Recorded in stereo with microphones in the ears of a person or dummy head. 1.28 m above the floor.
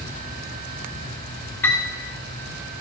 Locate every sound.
1.6 s a piano: 10° left (ahead or behind), 1.6 m